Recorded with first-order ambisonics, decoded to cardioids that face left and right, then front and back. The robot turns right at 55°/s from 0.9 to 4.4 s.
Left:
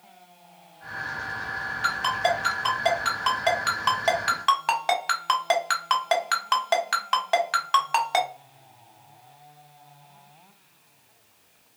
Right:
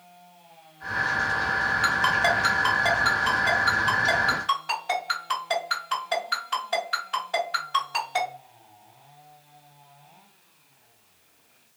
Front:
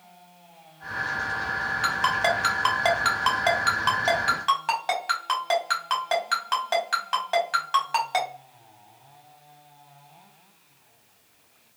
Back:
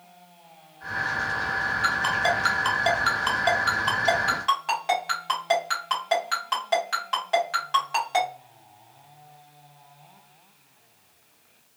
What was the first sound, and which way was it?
A ringtone, 60° right.